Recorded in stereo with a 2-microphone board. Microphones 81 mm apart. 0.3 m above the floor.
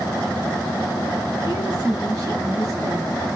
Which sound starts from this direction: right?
A woman speaking, at 1.4 s.